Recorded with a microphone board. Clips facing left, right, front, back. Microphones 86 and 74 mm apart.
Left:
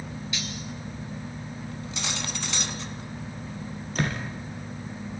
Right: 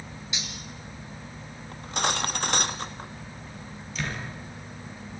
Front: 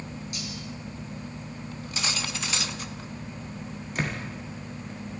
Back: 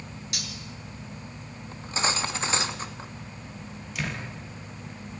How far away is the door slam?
About 5 m.